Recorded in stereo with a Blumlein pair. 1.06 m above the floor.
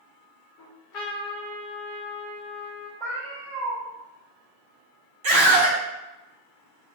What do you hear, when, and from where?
0.6 s a trumpet: 40° left, 0.9 m
3.0 s a cat meowing: 35° right, 1.3 m
5.2 s a scream: 50° right, 1.2 m